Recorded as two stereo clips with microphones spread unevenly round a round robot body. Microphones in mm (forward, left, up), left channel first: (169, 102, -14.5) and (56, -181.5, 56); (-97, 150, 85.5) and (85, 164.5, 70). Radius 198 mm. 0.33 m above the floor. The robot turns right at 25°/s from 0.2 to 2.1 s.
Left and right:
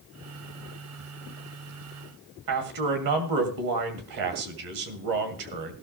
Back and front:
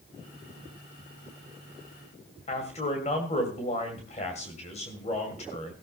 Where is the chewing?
I don't hear chewing.